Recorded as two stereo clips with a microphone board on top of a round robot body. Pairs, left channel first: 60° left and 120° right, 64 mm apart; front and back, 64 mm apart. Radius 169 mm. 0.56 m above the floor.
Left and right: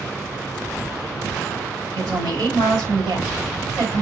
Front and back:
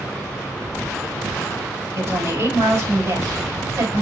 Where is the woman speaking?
145° right, 5.5 m.